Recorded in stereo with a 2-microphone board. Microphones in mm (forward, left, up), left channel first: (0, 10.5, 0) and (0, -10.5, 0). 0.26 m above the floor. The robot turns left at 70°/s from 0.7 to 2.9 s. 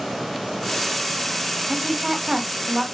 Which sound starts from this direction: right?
A woman speaking, at 1.7 s.